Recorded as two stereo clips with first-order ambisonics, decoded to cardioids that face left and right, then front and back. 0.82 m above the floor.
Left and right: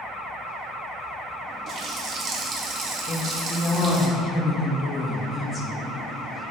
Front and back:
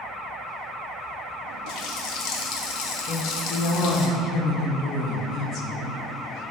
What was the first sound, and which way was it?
A running tap, 30° right.